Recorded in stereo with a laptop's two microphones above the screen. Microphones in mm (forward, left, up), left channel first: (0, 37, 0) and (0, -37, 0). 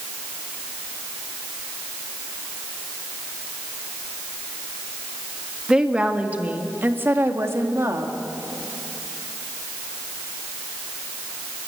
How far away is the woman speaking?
About 2 m.